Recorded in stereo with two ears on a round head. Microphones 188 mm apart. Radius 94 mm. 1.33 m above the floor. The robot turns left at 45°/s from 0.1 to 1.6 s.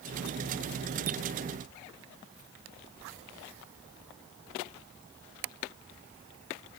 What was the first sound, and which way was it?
Only background noise.